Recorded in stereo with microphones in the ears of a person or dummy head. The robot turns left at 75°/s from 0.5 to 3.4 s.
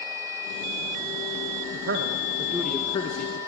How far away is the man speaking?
About 1.4 m.